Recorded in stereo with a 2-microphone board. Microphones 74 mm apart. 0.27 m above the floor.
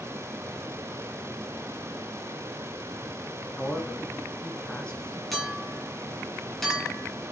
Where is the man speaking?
10° left (ahead or behind), 3 m.